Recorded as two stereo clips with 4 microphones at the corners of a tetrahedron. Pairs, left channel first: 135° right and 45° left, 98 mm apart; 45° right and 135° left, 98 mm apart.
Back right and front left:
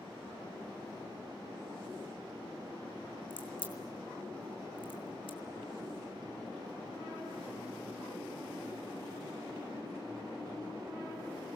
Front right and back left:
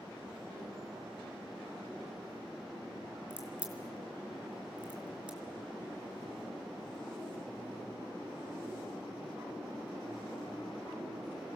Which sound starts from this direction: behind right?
A crack, at 3.3 s.